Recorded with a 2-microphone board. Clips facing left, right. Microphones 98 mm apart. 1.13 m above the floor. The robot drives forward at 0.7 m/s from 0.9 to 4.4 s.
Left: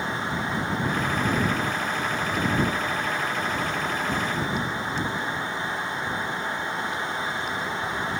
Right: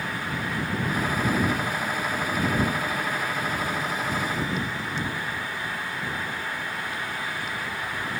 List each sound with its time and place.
Only background noise.